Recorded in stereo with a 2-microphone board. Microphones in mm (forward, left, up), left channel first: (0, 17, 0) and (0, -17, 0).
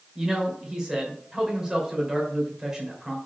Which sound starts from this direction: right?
A man speaking, at 0.1 s.